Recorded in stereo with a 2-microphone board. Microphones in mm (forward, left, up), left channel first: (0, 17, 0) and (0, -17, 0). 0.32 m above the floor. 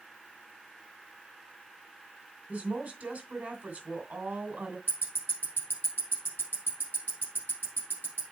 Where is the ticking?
80° right, 4 m.